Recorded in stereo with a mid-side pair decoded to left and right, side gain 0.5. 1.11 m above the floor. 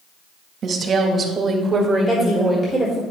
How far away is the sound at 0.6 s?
About 1.6 m.